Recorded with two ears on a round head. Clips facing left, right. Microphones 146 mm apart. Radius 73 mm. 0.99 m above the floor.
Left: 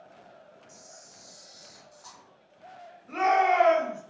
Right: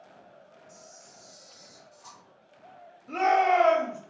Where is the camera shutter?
15° left (ahead or behind), 0.7 m.